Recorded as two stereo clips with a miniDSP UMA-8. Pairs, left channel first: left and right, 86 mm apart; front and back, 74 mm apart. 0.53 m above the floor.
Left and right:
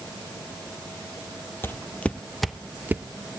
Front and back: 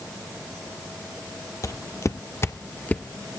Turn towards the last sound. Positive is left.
turn(degrees=-85)